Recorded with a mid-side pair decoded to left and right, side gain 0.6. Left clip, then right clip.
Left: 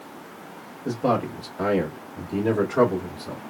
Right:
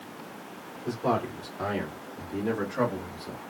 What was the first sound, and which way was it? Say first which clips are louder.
A man speaking: left 4 dB; 35° left.